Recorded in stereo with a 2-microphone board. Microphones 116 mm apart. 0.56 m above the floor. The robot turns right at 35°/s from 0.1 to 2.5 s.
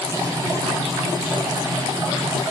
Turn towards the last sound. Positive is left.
No sound to turn to.